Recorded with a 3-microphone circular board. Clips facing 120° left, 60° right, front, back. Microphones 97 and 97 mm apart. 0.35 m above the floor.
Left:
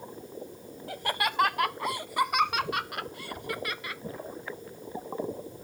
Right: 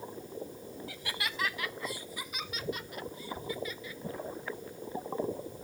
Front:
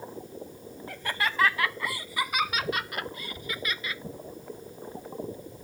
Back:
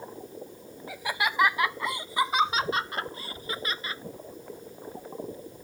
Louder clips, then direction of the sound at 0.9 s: Left 10 dB, back 1 dB; 100° left.